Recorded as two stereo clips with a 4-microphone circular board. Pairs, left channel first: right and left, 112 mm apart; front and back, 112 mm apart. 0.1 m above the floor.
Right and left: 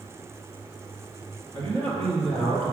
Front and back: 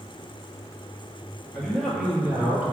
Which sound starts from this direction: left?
A man speaking, at 1.5 s.